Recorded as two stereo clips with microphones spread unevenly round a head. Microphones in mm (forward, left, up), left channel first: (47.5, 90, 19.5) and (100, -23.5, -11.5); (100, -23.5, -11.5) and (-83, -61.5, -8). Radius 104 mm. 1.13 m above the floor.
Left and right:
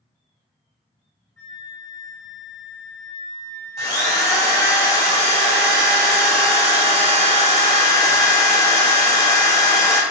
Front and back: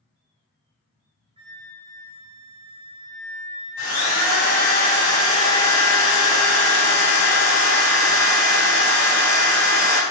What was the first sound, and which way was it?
A flute, 155° left.